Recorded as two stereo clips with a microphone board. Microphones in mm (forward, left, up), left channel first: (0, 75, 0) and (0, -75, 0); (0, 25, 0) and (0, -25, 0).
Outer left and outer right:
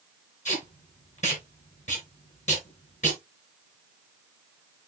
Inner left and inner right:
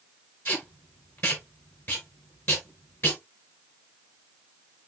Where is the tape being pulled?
55° left (ahead or behind), 5 m.